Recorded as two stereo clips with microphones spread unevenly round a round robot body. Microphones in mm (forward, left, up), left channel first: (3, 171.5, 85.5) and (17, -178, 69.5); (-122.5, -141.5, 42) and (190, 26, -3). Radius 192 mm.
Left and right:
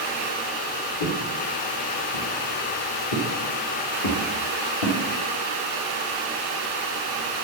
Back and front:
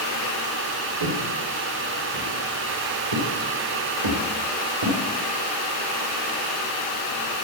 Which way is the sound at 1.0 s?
45° left.